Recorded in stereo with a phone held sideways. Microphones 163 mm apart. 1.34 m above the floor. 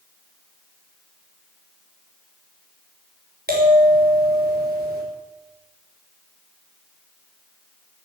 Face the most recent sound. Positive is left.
turn(degrees=-75)  # may be behind; listen again after turning